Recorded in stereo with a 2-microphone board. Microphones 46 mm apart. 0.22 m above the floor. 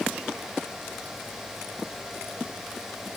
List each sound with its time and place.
Only background noise.